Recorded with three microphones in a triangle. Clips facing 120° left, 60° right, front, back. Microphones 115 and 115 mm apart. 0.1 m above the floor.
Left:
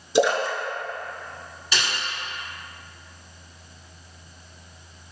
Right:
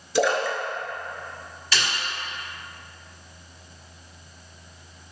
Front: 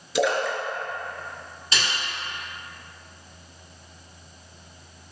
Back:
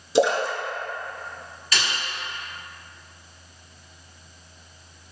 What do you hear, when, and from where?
0.1 s a splash: 165° left, 0.6 m
1.7 s a snare drum: 50° left, 1.6 m